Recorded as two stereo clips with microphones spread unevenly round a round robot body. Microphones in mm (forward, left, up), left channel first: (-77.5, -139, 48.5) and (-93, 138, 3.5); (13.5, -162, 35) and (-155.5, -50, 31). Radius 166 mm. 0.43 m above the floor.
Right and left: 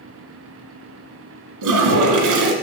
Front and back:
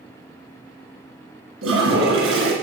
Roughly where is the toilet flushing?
Left.